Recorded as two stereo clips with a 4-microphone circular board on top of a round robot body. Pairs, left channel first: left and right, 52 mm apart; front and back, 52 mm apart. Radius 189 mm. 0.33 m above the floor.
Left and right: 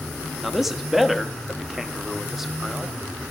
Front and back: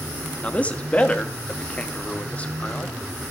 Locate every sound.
0.4 s a man speaking: 10° right, 1.3 m